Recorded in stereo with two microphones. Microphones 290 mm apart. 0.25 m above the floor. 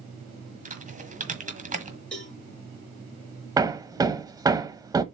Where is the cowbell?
5° left (ahead or behind), 3.5 m.